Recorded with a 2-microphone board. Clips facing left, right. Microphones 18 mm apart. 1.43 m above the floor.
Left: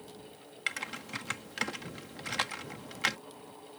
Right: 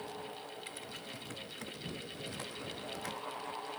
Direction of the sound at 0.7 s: 85° left.